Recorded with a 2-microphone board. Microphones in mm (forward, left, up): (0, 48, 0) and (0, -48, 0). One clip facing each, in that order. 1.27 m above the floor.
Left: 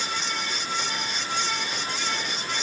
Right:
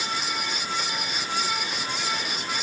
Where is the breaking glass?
I don't hear breaking glass.